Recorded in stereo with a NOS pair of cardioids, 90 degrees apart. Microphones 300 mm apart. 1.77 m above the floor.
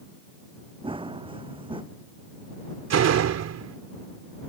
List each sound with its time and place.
0.8 s running footsteps: 15° right
2.9 s a door slam: 60° right